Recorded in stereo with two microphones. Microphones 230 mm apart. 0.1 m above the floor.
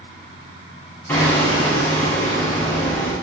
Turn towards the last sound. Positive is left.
turn(degrees=10)  # may be behind; listen again after turning